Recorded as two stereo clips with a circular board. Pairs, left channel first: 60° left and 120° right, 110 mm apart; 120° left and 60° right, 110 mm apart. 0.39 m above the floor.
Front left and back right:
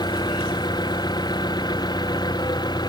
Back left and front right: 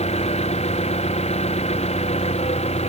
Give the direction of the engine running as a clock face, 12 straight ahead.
8 o'clock.